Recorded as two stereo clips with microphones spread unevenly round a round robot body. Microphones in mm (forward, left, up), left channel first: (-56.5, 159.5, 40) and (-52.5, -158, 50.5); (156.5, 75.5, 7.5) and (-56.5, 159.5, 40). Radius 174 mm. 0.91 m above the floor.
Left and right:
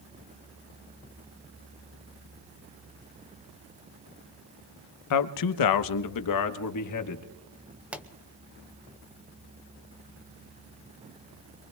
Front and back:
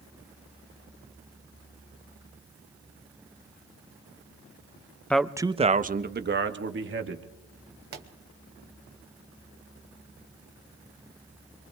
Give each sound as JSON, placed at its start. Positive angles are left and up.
{"t": 5.1, "sound": "a man speaking", "azimuth_deg": 60, "distance_m": 0.7}
{"t": 7.9, "sound": "a pop", "azimuth_deg": -175, "distance_m": 0.8}